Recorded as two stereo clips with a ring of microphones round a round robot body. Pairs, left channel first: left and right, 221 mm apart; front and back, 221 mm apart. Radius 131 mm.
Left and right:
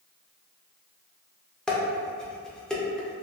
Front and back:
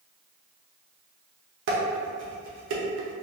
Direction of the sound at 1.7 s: 175° left.